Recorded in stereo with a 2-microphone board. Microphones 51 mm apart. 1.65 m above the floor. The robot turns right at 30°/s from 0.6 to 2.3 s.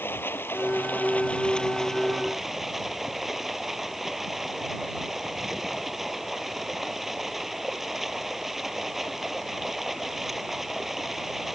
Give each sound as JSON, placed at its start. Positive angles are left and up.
{"t": 0.0, "sound": "running water", "azimuth_deg": 135}